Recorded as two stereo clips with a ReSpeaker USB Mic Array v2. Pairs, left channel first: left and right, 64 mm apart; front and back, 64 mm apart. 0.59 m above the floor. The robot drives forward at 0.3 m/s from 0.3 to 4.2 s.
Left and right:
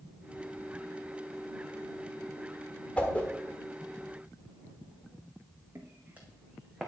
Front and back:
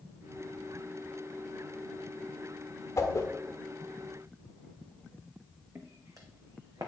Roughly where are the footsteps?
Behind right.